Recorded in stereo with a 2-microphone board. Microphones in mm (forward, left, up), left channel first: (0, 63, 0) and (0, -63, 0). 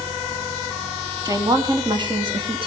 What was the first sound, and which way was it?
A woman speaking, 30° right (ahead or behind).